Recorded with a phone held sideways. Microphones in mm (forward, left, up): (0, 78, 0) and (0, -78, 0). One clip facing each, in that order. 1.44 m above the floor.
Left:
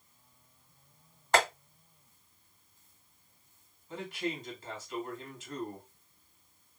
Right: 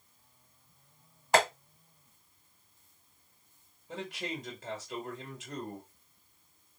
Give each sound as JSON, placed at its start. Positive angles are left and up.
{"t": 1.3, "sound": "tapping", "side_deg": -10, "distance_m": 1.8}
{"t": 3.9, "sound": "a man speaking", "side_deg": -85, "distance_m": 1.5}